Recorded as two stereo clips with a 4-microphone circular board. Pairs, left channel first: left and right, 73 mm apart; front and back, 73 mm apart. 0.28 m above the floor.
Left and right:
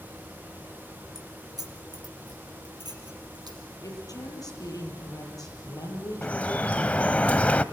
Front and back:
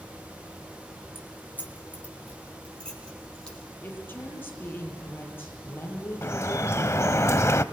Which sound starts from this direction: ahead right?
Keys jangling, at 1.1 s.